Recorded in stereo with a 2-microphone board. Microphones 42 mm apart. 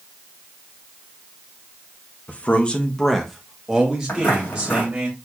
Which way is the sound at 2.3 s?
35° left (ahead or behind).